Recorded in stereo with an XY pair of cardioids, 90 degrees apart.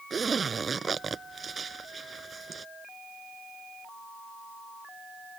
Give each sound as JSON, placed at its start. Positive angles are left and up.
{"t": 0.1, "sound": "a zipper", "azimuth_deg": -40}